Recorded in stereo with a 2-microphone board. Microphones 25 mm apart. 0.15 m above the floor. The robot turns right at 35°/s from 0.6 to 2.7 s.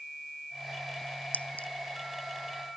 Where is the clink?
85° left; by 1.7 s 75° left (ahead or behind).